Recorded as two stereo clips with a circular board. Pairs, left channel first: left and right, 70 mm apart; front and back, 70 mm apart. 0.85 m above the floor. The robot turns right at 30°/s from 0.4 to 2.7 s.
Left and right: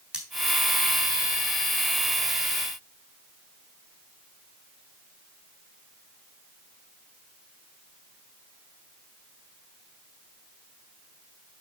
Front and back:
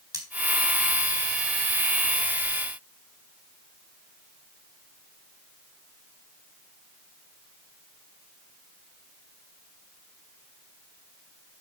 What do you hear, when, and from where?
0.1 s cutlery clinking: 165° right, 2 m